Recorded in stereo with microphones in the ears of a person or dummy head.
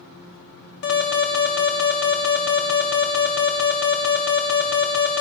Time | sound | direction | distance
0.8 | an alarm | 60° left (ahead or behind) | 2 m